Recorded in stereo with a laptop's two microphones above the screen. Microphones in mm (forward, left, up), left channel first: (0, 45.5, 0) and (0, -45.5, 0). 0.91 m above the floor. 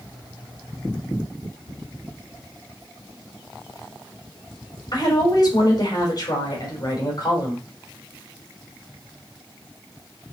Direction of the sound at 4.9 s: 45° left (ahead or behind).